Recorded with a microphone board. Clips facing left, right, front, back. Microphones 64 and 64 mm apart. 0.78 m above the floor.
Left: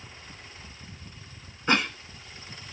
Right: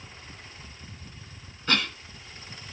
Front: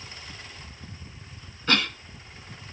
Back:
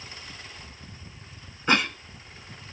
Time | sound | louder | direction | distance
1.7 | a cough | left 3 dB, back 2 dB | 130° left | 0.7 m